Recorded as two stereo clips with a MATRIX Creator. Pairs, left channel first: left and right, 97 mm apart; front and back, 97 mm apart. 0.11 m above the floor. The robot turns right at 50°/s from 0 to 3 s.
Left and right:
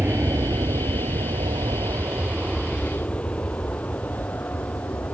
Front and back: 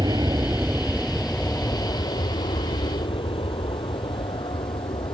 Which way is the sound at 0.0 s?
155° right.